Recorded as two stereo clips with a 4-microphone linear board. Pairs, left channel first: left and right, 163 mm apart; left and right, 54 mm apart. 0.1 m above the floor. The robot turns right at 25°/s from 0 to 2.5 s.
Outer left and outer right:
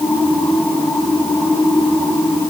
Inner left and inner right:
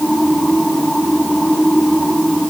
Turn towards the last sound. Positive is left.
No sound to turn to.